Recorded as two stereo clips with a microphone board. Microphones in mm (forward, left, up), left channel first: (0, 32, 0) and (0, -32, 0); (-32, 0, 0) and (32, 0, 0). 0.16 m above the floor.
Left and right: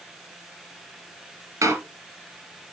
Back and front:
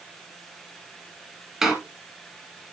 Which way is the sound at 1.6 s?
85° right.